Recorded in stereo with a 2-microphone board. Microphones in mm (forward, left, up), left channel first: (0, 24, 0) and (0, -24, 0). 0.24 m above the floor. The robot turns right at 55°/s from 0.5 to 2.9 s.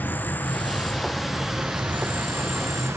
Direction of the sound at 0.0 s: 140° left.